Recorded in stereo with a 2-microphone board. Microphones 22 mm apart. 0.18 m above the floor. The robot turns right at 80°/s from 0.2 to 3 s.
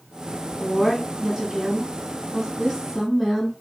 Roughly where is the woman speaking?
Centre.